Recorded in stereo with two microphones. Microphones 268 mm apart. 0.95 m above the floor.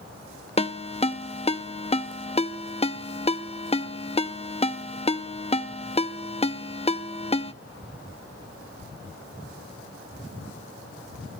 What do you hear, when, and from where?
0.6 s a ringtone: 25° left (ahead or behind), 0.7 m